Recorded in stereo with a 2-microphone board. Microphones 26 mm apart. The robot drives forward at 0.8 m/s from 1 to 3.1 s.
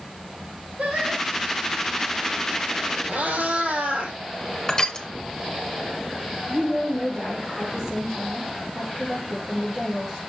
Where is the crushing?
20° left (ahead or behind), 0.9 m.